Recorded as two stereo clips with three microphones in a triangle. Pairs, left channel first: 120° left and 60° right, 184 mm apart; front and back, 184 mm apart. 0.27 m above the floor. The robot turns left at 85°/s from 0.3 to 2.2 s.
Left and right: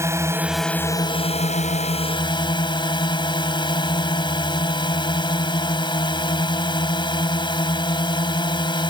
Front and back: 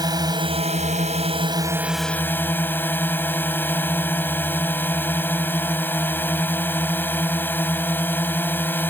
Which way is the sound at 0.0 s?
125° right.